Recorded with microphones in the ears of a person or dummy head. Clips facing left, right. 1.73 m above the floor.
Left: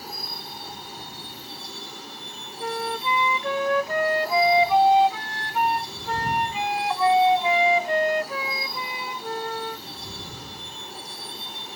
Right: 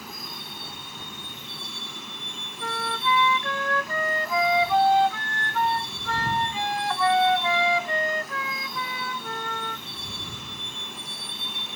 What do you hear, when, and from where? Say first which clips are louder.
0.0 s a vehicle: left 2 dB; 40° left (ahead or behind)
2.6 s a flute: left 2 dB; 15° left (ahead or behind)